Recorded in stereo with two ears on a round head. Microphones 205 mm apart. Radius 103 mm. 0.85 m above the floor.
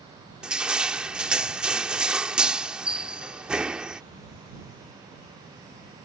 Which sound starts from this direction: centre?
Crushing, at 0.4 s.